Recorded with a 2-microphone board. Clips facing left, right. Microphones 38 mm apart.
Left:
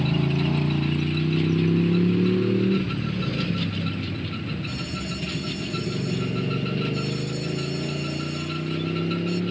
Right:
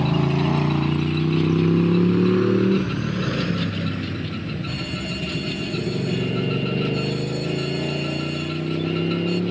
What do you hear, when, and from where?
0.0 s a motorcycle: 75° right (ahead or behind); by 9.5 s 80° right
4.7 s an alarm: 40° right (ahead or behind)